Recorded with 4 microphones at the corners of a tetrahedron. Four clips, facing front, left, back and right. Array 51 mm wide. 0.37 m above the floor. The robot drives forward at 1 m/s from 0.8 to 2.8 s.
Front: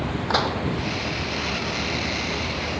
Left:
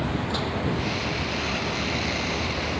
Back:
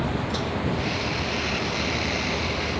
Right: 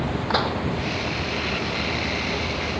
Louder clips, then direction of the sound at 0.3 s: Right 5 dB, front 5 dB; 40° right.